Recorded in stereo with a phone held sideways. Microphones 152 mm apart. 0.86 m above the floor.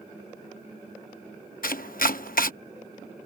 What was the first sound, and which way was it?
Chopping, 70° left (ahead or behind).